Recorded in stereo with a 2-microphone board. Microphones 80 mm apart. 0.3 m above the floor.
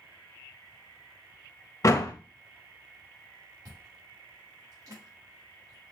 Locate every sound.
1.8 s a door slam: 40° left (ahead or behind), 0.7 m
3.6 s chewing: 50° right (ahead or behind), 4 m